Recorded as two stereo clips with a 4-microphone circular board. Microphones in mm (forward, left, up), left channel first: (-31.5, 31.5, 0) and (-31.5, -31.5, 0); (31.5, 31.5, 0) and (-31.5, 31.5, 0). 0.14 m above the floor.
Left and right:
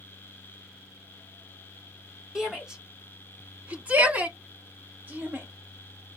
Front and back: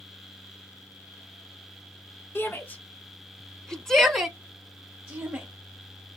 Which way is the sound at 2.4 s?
15° right.